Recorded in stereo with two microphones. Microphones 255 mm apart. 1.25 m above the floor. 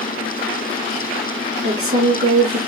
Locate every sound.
1.6 s a woman speaking: 65° right (ahead or behind), 1.9 m